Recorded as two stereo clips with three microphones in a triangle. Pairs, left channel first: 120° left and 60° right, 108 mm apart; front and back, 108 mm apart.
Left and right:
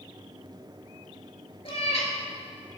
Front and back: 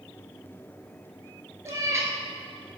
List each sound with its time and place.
1.6 s a cat meowing: 120° left, 1.5 m